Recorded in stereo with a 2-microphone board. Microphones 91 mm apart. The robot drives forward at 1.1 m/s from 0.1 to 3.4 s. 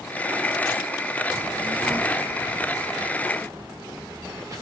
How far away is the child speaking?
About 3.5 m.